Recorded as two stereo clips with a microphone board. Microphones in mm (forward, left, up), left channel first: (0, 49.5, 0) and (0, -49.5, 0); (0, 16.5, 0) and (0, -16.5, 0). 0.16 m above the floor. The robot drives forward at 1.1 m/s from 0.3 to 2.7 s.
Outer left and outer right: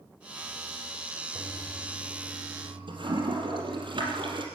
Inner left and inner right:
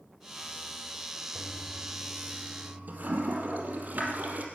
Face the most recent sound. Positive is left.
turn(degrees=-55)  # may be behind; listen again after turning